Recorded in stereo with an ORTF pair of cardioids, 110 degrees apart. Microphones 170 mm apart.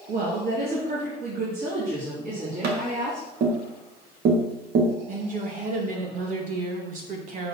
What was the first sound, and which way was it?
A woman speaking, 65° right.